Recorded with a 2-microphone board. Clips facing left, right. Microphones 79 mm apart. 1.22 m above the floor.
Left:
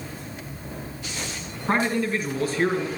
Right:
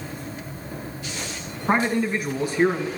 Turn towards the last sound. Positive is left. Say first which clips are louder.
# right 2 dB
turn(degrees=-20)  # may be behind; listen again after turning